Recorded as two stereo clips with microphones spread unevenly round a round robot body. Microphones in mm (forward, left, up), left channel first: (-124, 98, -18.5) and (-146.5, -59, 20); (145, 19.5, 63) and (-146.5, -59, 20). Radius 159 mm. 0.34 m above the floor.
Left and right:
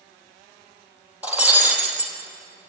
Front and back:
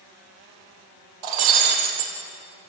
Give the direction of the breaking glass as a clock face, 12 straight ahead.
6 o'clock.